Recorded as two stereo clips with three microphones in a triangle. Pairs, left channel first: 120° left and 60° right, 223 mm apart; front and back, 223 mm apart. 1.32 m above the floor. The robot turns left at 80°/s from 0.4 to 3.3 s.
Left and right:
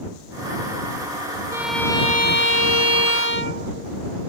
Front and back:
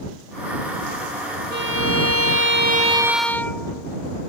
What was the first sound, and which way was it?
A violin, 135° right.